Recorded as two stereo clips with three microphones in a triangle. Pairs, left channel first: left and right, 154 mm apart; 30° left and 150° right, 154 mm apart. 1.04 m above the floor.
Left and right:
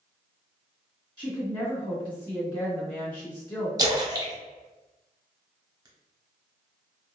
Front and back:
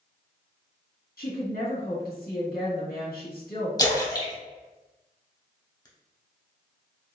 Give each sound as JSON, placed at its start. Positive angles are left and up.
{"t": 1.2, "sound": "a woman speaking", "azimuth_deg": 30, "distance_m": 1.7}
{"t": 3.8, "sound": "a splash", "azimuth_deg": -30, "distance_m": 0.8}